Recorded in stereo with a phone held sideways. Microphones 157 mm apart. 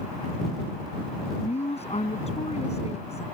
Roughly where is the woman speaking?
Left.